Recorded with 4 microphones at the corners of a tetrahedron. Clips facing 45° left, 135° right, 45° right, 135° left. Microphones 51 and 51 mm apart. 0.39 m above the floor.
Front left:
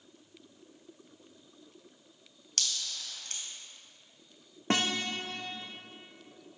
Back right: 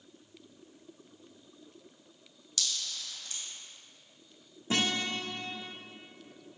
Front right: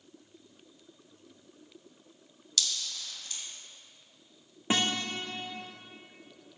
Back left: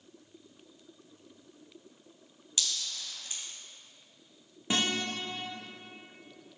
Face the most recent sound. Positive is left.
turn(degrees=20)